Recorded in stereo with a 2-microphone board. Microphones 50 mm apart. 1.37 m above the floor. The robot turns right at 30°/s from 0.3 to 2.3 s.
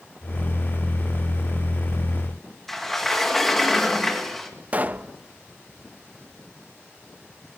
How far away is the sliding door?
About 2.5 m.